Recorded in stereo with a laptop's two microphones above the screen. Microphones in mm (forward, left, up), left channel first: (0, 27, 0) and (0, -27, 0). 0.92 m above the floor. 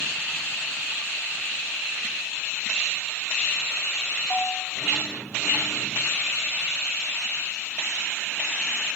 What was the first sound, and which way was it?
A bell, 25° left (ahead or behind).